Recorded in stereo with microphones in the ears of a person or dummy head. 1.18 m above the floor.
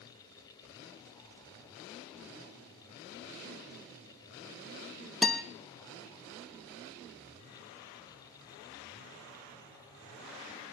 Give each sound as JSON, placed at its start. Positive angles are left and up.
{"t": 5.2, "sound": "a guitar", "side_deg": -5, "distance_m": 0.8}